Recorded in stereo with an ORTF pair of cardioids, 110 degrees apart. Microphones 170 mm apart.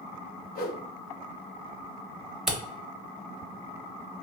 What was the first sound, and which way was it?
A whoosh, 60° left.